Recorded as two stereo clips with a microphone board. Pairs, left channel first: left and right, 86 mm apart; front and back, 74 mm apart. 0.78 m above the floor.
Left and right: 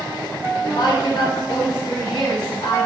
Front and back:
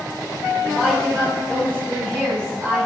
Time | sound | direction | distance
0.6 | a woman speaking | 110° left | 2.5 m